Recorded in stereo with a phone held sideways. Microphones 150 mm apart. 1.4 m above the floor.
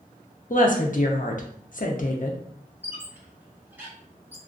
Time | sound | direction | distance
0.5 | a woman speaking | 60° left (ahead or behind) | 0.5 m
2.8 | a squeak | 15° right (ahead or behind) | 0.8 m